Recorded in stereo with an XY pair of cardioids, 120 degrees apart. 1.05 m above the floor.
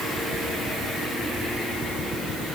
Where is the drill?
I don't hear a drill.